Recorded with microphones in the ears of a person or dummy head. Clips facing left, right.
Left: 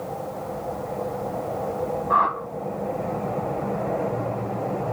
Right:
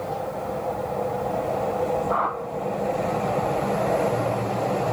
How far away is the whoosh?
About 1.2 m.